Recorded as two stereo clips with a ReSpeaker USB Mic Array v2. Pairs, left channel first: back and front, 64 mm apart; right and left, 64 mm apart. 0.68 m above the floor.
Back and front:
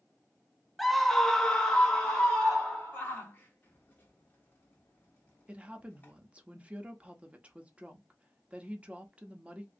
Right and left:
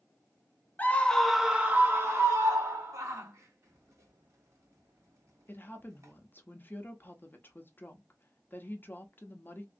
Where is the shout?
120° left, 1.3 m.